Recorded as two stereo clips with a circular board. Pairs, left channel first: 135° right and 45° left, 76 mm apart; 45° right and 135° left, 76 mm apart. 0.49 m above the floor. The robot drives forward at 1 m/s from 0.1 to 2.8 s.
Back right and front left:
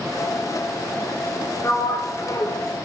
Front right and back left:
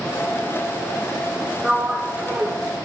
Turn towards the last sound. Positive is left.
turn(degrees=-170)